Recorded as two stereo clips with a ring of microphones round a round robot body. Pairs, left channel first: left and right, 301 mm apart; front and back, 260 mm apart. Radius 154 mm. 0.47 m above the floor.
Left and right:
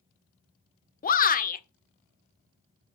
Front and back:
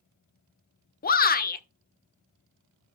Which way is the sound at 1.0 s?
40° left.